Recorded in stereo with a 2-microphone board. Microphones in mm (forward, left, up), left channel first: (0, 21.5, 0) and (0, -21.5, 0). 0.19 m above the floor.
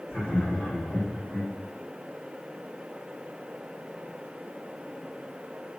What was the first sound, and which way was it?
Laughter, 10° left (ahead or behind).